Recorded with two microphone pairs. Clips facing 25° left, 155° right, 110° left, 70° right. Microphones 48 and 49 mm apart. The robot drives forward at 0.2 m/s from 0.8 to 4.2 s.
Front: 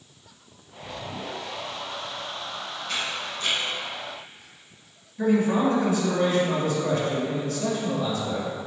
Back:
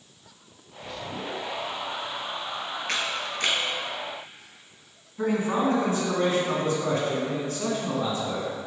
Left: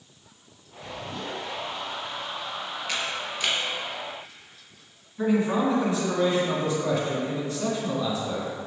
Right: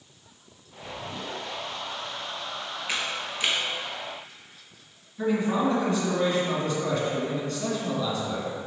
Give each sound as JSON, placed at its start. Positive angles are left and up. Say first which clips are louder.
{"t": 2.9, "sound": "a camera shutter", "louder": "even, right 1 dB", "azimuth_deg": -140, "distance_m": 1.3}
{"t": 5.2, "sound": "a man speaking", "louder": "front 3 dB, left 1 dB", "azimuth_deg": -175, "distance_m": 1.9}